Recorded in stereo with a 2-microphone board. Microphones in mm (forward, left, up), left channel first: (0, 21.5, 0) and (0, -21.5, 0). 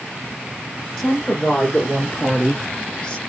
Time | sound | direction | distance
1.0 | a woman speaking | 15° left (ahead or behind) | 2.5 m